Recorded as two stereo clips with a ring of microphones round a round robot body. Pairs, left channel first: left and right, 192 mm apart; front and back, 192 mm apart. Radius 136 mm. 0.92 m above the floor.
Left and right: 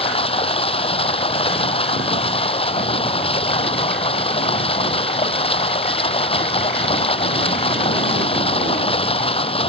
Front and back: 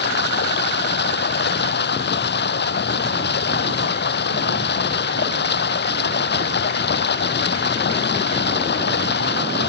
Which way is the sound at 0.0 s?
30° left.